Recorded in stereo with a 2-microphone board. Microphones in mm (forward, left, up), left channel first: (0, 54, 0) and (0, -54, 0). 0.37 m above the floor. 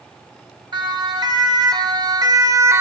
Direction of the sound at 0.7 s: 45° right (ahead or behind).